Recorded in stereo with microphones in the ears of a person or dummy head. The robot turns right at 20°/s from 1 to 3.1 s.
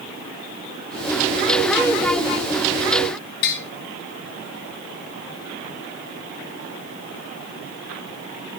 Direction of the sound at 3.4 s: 60° left (ahead or behind).